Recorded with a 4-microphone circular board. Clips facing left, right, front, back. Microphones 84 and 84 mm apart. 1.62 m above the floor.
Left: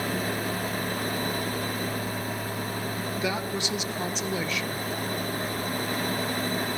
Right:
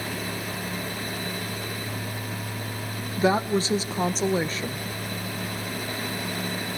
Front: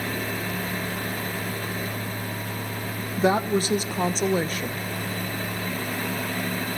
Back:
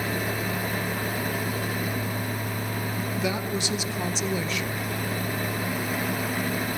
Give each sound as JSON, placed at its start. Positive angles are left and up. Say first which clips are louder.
{"t": 3.2, "sound": "a woman speaking", "louder": "right 10 dB, front 9 dB", "azimuth_deg": -40, "distance_m": 0.9}